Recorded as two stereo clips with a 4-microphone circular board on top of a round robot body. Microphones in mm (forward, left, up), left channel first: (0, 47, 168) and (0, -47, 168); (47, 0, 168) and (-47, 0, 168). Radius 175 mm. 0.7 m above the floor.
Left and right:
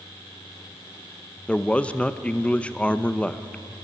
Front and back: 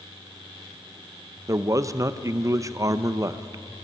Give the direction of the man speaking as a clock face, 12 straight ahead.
7 o'clock.